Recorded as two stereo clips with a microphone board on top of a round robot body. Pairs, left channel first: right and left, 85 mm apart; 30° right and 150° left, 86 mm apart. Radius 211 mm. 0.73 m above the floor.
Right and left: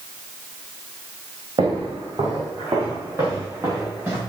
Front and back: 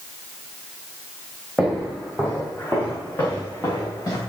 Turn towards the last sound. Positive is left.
turn(degrees=20)